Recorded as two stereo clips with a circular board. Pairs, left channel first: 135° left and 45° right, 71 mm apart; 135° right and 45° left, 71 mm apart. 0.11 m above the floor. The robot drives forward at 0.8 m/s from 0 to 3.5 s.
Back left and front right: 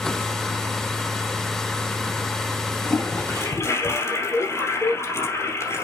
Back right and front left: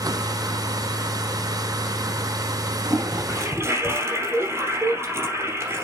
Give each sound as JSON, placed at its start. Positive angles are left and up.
{"t": 2.9, "sound": "a toilet flushing", "azimuth_deg": 80, "distance_m": 3.0}